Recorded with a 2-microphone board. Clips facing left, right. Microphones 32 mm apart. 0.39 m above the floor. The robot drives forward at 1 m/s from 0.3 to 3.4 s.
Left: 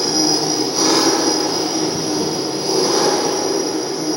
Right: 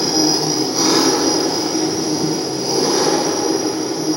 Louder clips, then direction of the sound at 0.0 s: Right 1 dB; 5° right (ahead or behind).